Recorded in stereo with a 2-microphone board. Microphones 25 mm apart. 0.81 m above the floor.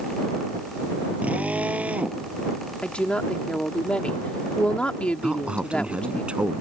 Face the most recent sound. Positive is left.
turn(degrees=-45)  # may be behind; listen again after turning